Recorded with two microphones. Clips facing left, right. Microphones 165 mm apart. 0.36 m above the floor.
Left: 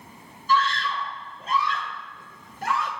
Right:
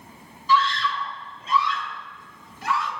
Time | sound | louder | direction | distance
0.5 | a scream | right 2 dB | 50° left (ahead or behind) | 1.2 m